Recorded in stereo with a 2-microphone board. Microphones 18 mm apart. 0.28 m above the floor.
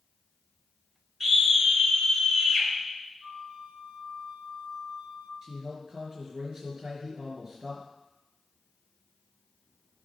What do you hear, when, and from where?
1.2 s a scream: 15° right (ahead or behind), 4.5 m
3.2 s a flute: 45° right (ahead or behind), 2.5 m
5.4 s a man speaking: 35° right (ahead or behind), 4.5 m